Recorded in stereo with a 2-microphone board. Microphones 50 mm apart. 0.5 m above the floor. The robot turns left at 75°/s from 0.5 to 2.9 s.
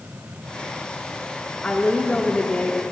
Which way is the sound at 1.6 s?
15° left (ahead or behind).